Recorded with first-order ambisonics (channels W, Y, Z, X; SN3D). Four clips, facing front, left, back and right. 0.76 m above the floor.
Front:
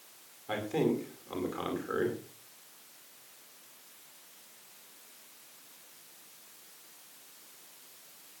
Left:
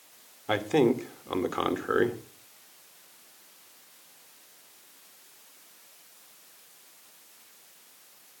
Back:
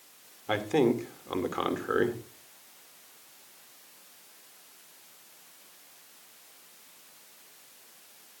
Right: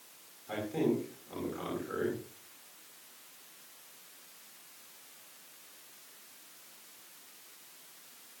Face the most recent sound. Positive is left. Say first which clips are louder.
# left 8 dB, back 5 dB
turn(degrees=115)